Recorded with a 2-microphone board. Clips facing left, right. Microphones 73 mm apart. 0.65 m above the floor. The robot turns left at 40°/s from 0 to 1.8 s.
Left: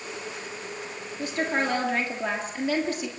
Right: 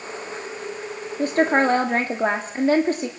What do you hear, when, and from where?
1.2 s a woman speaking: 45° right (ahead or behind), 1.4 m; by 3.1 s 40° right (ahead or behind), 1.4 m